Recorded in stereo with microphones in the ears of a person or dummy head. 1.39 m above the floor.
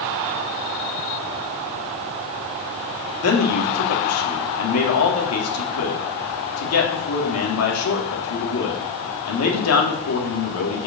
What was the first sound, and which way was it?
A man speaking, 75° left (ahead or behind).